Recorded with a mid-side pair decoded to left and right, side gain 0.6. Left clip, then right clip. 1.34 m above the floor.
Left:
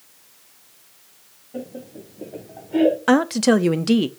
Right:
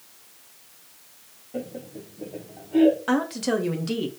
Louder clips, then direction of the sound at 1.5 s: Even; 10° right.